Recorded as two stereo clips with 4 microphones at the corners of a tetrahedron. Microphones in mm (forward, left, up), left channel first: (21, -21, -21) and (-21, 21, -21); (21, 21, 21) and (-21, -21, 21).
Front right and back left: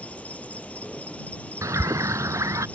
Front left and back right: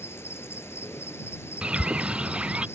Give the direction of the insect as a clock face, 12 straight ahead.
11 o'clock.